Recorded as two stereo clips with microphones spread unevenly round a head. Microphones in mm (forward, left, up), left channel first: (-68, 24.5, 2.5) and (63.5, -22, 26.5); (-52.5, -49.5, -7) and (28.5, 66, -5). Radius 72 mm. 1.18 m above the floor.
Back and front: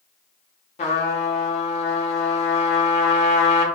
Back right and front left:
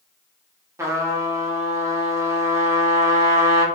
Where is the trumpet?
120° left, 0.8 m.